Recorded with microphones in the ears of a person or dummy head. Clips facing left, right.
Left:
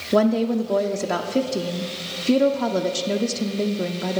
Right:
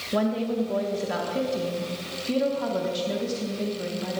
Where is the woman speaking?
60° left (ahead or behind), 0.5 m.